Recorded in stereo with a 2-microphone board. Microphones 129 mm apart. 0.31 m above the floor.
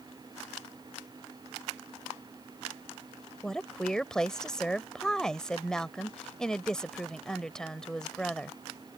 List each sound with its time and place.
3.4 s a woman speaking: 5° left (ahead or behind)